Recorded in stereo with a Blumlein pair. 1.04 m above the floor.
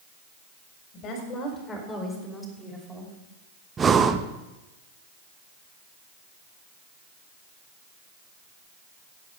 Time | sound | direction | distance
0.9 | a woman speaking | 35° left | 3 m
3.8 | breathing | 20° right | 0.8 m